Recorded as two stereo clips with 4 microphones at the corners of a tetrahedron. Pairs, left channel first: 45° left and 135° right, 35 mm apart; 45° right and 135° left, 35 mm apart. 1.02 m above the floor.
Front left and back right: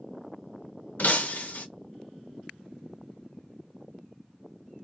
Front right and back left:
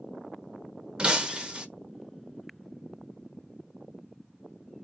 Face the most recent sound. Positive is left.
turn(degrees=75)